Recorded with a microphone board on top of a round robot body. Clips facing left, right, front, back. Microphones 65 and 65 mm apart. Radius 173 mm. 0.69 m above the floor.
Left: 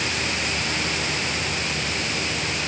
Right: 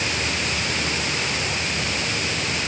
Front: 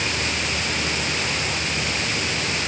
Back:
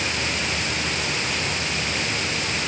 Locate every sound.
Only background noise.